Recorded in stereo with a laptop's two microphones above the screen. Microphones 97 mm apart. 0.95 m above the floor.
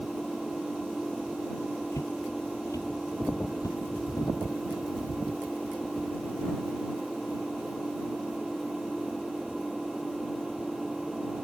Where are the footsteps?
35° left (ahead or behind); by 4.3 s 40° left (ahead or behind).